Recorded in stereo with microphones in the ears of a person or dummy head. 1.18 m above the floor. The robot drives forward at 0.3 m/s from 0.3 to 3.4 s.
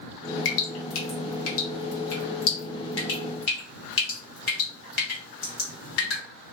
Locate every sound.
0.5 s dripping: 70° left (ahead or behind), 1.0 m; by 6.2 s 55° left (ahead or behind), 1.2 m